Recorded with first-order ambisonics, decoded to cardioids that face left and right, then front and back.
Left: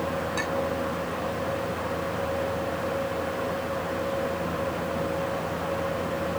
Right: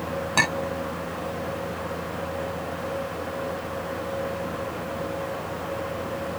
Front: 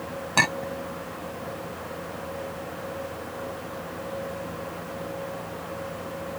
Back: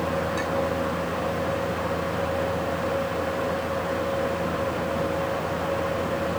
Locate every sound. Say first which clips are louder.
0.4 s a clink: right 8 dB, front 2 dB; 40° right